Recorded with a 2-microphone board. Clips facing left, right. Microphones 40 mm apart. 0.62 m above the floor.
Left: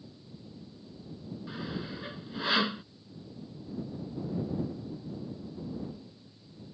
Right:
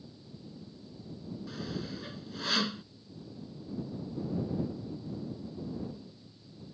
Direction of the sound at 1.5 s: 20° left (ahead or behind).